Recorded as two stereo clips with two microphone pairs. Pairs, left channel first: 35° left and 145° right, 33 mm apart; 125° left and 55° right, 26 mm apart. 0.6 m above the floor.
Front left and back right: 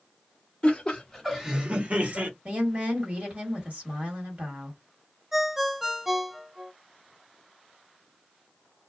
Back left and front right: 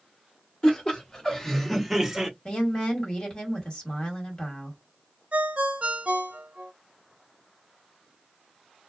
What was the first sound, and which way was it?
Laughter, 80° left.